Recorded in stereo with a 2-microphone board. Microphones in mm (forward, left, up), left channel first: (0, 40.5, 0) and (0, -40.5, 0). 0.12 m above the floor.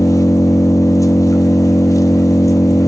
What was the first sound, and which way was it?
An engine running, 45° left (ahead or behind).